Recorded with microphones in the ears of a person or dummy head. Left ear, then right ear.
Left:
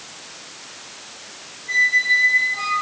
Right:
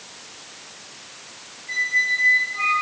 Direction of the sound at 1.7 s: 35° left (ahead or behind).